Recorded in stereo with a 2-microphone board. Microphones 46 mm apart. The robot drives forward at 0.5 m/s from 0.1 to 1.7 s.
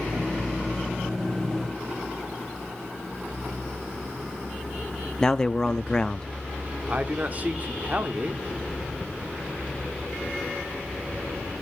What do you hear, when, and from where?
5.2 s a man speaking: 15° left (ahead or behind), 0.5 m
6.9 s a man speaking: 35° right (ahead or behind), 1.2 m